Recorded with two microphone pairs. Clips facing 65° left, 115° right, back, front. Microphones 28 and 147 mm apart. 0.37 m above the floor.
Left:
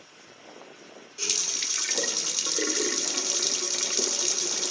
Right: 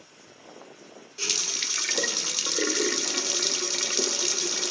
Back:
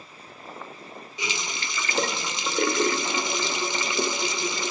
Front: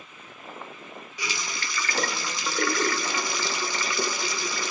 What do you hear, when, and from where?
1.2 s a running tap: 165° right, 0.5 m